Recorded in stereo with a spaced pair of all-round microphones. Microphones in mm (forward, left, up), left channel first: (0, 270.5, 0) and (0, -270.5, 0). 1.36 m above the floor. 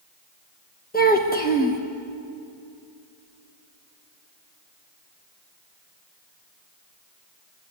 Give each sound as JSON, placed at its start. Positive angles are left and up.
{"t": 0.9, "sound": "a child speaking", "side_deg": 15, "distance_m": 1.1}